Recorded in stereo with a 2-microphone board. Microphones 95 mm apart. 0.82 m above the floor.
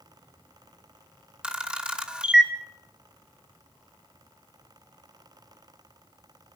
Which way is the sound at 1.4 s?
10° right (ahead or behind).